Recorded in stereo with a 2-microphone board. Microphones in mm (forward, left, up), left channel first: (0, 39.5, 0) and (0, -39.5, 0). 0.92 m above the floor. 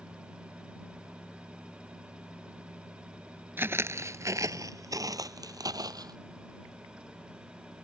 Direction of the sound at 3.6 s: 30° right (ahead or behind).